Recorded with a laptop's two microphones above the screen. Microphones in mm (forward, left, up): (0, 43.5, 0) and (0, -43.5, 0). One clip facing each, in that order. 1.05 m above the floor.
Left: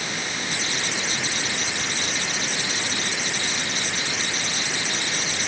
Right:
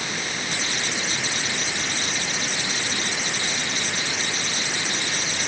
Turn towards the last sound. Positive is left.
No sound to turn to.